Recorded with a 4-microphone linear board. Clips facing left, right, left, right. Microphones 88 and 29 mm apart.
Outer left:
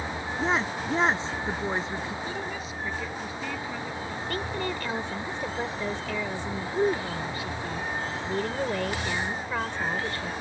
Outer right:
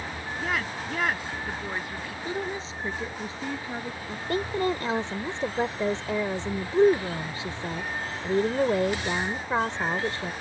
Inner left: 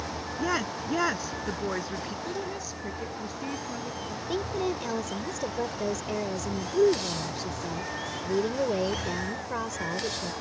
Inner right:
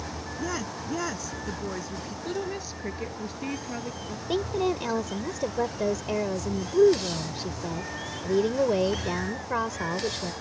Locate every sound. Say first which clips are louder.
0.4 s a woman speaking: outer left 4 dB, inner left 4 dB; 25° left (ahead or behind)
2.2 s a woman speaking: outer right 2 dB, inner right 2 dB; 30° right (ahead or behind)
4.1 s a woman speaking: outer right 6 dB, inner right 4 dB; 25° right (ahead or behind)